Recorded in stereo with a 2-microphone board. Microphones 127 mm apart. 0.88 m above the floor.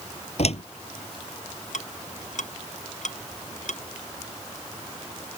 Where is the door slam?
55° left (ahead or behind).